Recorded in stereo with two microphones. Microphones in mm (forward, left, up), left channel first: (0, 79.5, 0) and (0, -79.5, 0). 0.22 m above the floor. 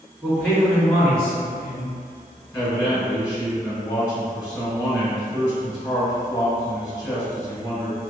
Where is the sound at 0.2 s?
5° left (ahead or behind), 1.9 m.